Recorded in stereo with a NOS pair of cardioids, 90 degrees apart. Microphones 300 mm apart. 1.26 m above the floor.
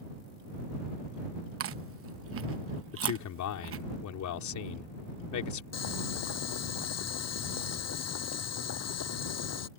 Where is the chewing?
50° right.